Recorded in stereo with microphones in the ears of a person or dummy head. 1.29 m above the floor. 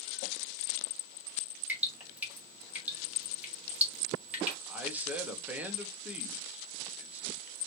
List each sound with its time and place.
1.7 s dripping: 10° right (ahead or behind), 2 m
4.7 s a man speaking: 5° right (ahead or behind), 0.9 m